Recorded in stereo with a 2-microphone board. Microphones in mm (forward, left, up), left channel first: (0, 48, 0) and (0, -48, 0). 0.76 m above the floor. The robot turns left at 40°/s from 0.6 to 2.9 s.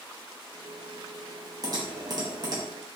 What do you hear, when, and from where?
1.6 s typing on a keyboard: 40° right (ahead or behind), 0.6 m